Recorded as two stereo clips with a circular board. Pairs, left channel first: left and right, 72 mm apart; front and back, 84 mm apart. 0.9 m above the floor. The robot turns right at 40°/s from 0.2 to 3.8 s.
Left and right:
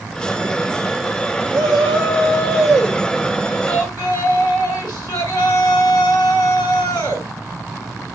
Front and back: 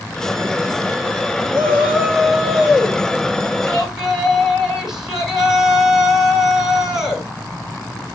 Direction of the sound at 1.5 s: Straight ahead.